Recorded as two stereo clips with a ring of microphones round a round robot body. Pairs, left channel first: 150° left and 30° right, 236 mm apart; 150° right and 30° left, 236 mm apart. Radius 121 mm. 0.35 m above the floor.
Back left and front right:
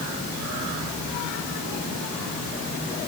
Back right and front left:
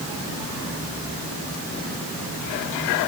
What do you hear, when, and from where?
Only background noise.